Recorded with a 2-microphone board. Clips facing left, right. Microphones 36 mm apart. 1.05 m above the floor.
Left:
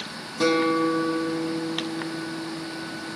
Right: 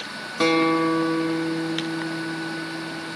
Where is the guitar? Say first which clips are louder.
Right 2 dB; 45° right (ahead or behind), 0.5 m.